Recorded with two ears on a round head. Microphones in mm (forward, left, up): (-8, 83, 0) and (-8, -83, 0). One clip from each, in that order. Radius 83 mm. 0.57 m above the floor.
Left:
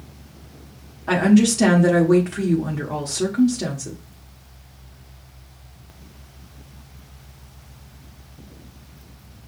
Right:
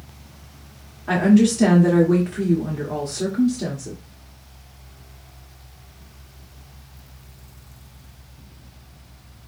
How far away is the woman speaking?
About 1.2 m.